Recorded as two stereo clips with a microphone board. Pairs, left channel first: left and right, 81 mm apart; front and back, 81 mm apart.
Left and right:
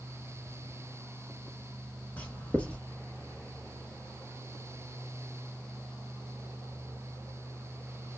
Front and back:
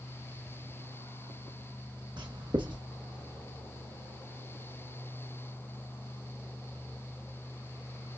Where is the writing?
160° left, 1.3 m.